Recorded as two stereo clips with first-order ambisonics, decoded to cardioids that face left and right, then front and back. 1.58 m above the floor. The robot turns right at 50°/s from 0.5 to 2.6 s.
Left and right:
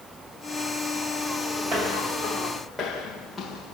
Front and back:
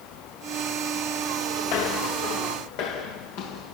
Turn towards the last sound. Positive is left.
turn(degrees=0)